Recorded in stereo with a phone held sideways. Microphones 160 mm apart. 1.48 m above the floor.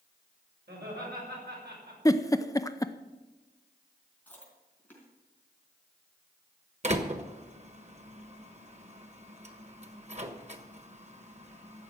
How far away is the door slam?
About 1.2 m.